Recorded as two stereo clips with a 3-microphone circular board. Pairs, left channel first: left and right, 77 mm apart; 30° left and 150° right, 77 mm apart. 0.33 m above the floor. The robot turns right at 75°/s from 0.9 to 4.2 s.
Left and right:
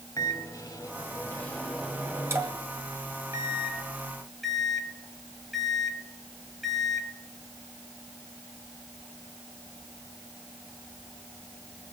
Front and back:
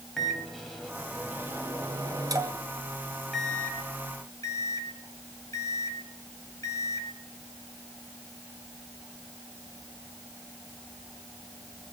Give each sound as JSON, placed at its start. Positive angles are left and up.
{"t": 0.2, "sound": "a microwave", "azimuth_deg": 115, "distance_m": 2.0}